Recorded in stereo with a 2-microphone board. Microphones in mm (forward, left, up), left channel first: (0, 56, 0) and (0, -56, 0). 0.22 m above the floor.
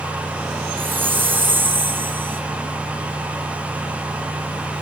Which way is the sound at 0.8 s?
20° right (ahead or behind).